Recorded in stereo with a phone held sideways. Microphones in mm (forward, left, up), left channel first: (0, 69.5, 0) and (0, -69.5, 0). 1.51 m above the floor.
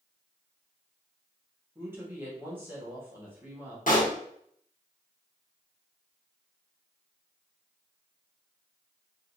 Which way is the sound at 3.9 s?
70° left (ahead or behind).